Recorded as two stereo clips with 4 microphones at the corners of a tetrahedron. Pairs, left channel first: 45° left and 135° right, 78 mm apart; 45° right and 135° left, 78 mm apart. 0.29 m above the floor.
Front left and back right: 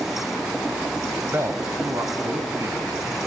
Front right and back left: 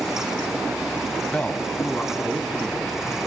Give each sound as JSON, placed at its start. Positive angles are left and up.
{"t": 1.3, "sound": "a man speaking", "azimuth_deg": -105, "distance_m": 1.4}